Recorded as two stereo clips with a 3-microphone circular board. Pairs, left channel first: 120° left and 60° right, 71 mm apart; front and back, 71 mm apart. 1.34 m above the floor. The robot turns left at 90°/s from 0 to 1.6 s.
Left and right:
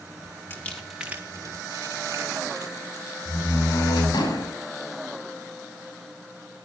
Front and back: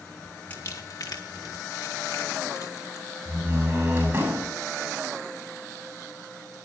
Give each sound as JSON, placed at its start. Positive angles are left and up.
{"t": 0.5, "sound": "crumpling", "azimuth_deg": 65, "distance_m": 2.5}
{"t": 3.2, "sound": "a door slam", "azimuth_deg": 115, "distance_m": 8.0}